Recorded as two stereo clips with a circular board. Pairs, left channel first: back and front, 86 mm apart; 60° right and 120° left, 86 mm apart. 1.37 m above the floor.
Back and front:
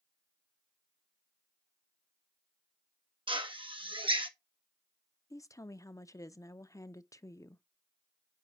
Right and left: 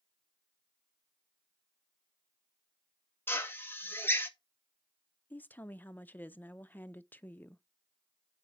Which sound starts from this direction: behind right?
A woman speaking, at 5.3 s.